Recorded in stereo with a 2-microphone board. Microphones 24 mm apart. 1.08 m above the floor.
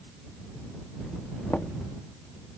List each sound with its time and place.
1.5 s knocking: 70° left (ahead or behind)